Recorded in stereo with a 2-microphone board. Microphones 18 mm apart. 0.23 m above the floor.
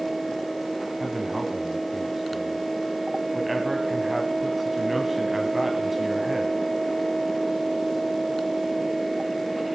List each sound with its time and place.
1.0 s a man speaking: 10° right (ahead or behind), 1.4 m